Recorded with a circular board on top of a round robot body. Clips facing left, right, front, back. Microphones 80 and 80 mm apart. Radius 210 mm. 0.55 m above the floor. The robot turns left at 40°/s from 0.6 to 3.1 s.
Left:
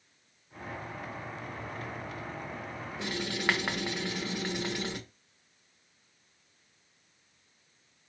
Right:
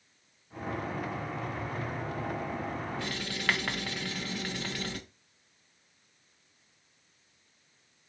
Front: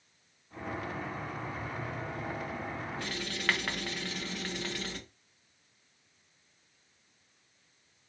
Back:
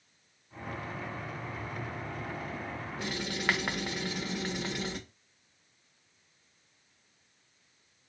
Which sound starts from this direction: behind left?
Writing, at 3.0 s.